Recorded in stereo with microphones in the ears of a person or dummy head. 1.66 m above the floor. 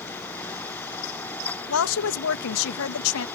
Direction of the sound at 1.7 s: 75° left (ahead or behind).